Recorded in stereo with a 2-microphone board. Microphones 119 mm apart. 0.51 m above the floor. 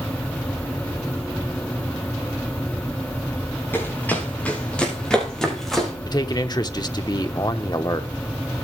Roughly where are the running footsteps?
Centre.